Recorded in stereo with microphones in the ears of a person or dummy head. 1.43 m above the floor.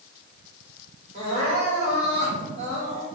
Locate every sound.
1.1 s crying: 40° right (ahead or behind), 1.7 m